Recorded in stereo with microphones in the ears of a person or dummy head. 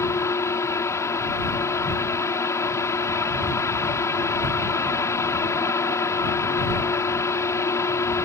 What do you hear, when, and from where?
0.0 s a fan: 10° left (ahead or behind)